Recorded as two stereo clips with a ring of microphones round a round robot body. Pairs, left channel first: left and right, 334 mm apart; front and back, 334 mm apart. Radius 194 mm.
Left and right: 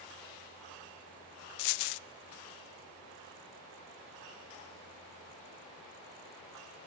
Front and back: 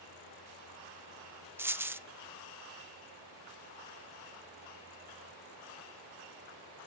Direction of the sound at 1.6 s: 95° left.